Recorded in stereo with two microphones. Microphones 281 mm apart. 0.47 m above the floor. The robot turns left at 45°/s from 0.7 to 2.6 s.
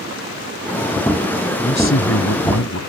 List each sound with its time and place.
1.6 s a man speaking: 140° left; by 2.8 s 95° left